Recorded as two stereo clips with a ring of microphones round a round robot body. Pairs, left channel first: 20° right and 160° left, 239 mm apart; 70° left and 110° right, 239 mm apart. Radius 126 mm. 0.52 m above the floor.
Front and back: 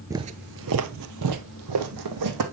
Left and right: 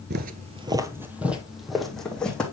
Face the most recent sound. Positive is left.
turn(degrees=155)